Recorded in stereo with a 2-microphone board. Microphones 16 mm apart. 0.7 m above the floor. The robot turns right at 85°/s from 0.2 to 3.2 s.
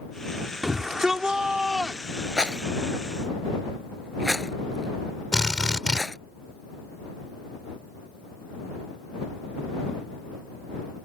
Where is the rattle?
85° right; by 6.2 s 25° right (ahead or behind).